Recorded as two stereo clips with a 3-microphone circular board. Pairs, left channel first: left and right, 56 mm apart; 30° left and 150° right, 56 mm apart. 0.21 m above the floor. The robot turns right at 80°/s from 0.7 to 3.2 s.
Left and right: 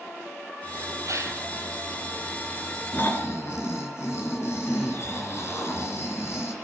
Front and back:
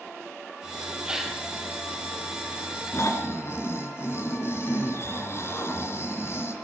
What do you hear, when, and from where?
1.1 s a gasp: 80° right, 2.5 m; by 1.4 s 50° right, 2.5 m
2.9 s snoring: 40° left, 3 m; by 6.5 s 65° left, 3 m